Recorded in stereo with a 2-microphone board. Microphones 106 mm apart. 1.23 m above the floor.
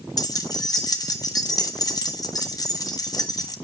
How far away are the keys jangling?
About 0.9 m.